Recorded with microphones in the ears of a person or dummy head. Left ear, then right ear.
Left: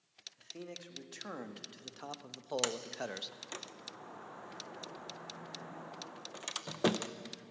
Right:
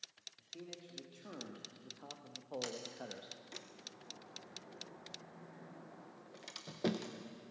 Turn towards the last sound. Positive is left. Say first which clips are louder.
# left 7 dB
turn(degrees=35)  # may be behind; listen again after turning